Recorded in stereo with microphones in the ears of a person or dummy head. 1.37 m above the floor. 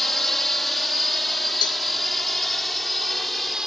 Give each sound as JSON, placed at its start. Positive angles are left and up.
{"t": 0.0, "sound": "a drone", "side_deg": 5}
{"t": 1.6, "sound": "a cowbell", "side_deg": 30}